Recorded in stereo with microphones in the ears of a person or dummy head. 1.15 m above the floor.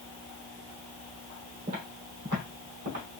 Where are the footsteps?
45° right (ahead or behind), 2.5 m; by 3.0 s 55° right (ahead or behind), 3 m.